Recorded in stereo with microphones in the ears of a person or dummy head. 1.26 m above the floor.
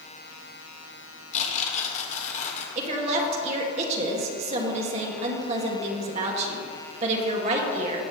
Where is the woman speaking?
40° right (ahead or behind), 1.7 m.